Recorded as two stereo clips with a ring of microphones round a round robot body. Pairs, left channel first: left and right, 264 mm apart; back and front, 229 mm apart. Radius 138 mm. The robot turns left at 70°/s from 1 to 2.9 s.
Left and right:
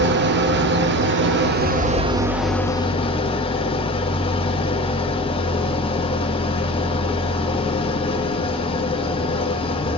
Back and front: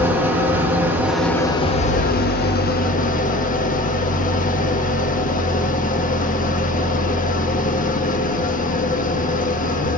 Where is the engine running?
80° right, 0.9 m; by 10.0 s 150° left, 0.9 m.